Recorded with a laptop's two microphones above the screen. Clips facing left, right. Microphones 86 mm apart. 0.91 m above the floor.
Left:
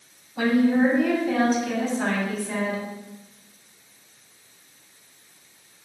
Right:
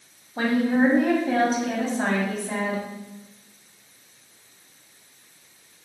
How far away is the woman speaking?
About 6 m.